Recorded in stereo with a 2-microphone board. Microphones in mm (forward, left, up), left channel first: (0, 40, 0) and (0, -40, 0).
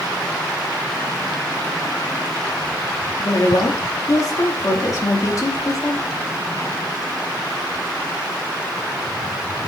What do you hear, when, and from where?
3.2 s a woman speaking: 45° left (ahead or behind), 2 m